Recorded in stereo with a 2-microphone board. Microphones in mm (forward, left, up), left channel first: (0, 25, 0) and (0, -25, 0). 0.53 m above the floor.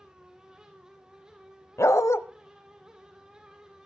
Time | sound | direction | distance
1.8 | a dog barking | 85° left | 0.8 m